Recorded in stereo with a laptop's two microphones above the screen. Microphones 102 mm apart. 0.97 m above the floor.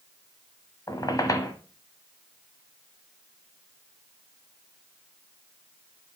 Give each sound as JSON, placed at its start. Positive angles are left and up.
{"t": 0.9, "sound": "a squeak", "side_deg": 35, "distance_m": 1.2}